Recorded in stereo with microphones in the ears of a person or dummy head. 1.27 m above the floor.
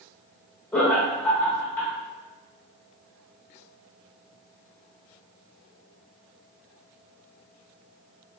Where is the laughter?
15° left (ahead or behind), 0.6 m.